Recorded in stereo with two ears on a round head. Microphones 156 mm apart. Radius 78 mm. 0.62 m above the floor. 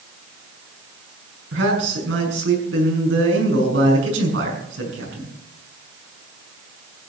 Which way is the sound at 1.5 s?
80° right.